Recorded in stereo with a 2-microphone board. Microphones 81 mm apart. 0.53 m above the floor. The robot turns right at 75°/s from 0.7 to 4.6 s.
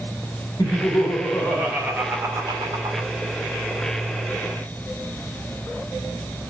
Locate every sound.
0.6 s laughter: 110° left, 1.7 m; by 3.1 s 70° right, 1.7 m